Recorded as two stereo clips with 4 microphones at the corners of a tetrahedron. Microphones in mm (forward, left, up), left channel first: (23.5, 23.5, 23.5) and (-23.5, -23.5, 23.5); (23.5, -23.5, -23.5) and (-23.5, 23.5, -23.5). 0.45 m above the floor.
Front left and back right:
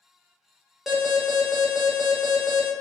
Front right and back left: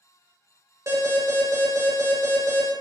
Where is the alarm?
140° left, 0.8 m.